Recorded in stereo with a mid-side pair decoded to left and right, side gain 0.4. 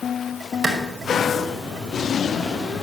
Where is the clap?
35° right, 5.5 m.